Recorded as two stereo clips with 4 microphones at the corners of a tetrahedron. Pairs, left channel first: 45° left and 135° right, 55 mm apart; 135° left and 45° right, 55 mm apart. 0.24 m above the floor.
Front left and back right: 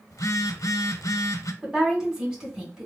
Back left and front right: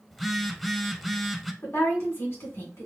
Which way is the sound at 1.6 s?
150° left.